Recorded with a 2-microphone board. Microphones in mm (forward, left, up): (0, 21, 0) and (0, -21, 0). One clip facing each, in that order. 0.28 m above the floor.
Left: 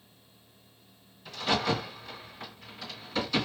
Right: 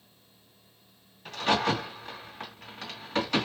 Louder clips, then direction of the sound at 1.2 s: Right 2 dB; 55° right (ahead or behind).